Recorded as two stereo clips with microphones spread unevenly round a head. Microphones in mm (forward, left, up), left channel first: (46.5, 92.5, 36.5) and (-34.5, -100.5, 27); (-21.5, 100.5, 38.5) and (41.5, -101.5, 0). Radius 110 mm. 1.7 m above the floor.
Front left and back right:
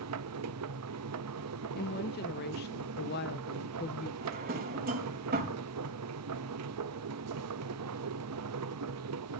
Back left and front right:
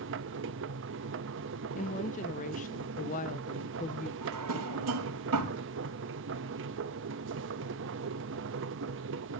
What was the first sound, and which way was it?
A machine running, 105° right.